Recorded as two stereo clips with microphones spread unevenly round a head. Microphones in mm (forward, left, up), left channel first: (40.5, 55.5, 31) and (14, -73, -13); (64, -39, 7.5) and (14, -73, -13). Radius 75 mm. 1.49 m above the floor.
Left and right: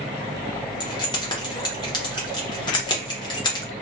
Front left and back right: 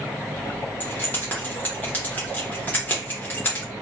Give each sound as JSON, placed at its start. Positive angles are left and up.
{"t": 0.8, "sound": "keys jangling", "azimuth_deg": 70, "distance_m": 0.8}